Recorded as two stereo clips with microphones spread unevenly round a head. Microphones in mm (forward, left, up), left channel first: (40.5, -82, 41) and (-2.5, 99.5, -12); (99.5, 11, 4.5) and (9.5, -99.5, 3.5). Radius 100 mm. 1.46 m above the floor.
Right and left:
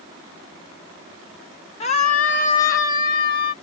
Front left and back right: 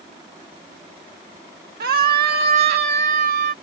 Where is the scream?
130° right; by 3.5 s 120° right.